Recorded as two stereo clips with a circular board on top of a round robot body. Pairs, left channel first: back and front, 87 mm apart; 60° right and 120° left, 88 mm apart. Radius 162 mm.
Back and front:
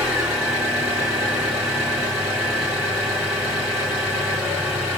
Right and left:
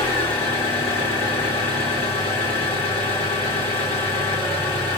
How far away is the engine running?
About 1.5 m.